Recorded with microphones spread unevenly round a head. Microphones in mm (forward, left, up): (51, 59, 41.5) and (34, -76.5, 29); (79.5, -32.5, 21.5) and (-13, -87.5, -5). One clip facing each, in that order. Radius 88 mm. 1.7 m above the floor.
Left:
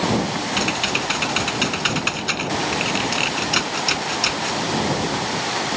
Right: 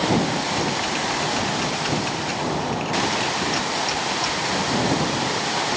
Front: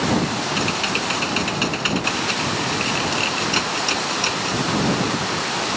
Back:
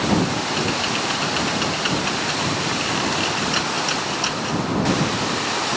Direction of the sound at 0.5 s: 90° left.